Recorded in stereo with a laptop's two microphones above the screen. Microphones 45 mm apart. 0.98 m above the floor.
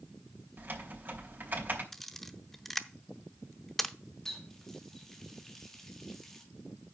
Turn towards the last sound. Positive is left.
turn(degrees=5)  # may be behind; listen again after turning